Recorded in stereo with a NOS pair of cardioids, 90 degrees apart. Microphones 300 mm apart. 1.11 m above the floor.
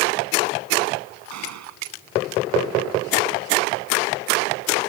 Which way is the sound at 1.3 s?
65° right.